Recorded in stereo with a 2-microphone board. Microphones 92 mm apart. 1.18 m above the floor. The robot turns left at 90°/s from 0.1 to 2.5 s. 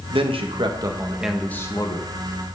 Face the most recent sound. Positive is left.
turn(degrees=75)